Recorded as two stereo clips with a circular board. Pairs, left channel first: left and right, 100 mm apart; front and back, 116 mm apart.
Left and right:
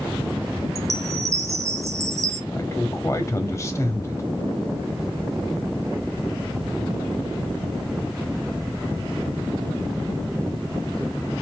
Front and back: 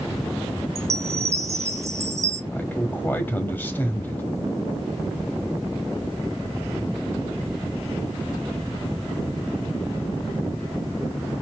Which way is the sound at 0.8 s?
130° right.